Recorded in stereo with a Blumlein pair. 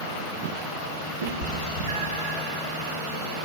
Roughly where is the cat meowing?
Ahead right.